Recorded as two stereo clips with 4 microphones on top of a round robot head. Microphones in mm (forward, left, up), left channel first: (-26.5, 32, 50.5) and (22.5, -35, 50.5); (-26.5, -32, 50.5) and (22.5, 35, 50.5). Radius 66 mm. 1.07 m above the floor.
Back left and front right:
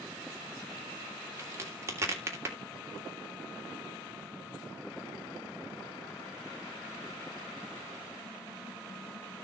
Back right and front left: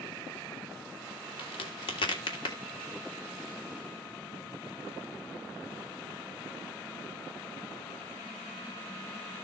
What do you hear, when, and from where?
1.4 s a crack: 110° right, 3 m